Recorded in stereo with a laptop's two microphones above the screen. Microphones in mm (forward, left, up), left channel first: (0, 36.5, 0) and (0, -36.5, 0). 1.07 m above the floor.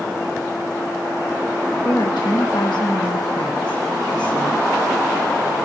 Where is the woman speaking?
85° left, 1.2 m.